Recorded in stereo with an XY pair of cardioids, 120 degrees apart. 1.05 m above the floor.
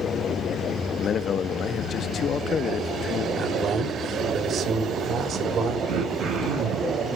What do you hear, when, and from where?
1.0 s a man speaking: 45° left, 0.7 m
3.4 s a man speaking: 55° right, 4.5 m
5.9 s throat clearing: 60° right, 5 m